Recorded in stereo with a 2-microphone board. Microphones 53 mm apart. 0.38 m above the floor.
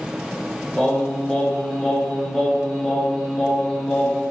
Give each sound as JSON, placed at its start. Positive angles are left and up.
{"t": 0.8, "sound": "singing", "side_deg": 15, "distance_m": 1.2}